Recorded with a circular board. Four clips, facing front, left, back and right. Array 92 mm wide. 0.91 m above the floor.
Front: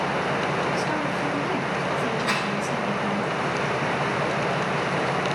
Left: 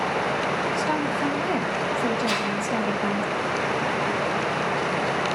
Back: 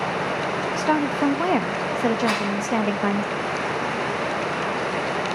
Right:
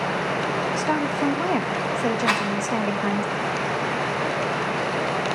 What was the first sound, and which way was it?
A woman speaking, 165° right.